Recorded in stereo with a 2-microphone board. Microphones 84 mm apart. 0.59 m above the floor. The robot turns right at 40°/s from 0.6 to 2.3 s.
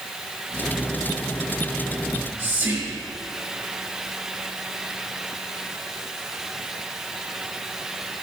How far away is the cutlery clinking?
No cutlery clinking in this recording.